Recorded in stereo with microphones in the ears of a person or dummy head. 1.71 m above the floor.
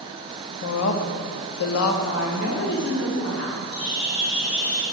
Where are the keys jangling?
I don't hear keys jangling.